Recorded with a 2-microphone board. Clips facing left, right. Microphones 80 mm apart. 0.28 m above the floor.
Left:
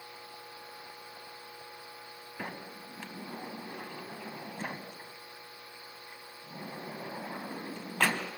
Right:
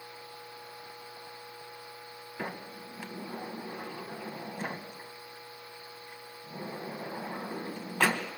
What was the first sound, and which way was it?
A sliding door, 10° right (ahead or behind).